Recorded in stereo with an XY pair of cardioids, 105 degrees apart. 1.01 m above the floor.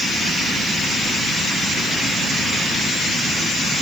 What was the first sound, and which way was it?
Only background noise.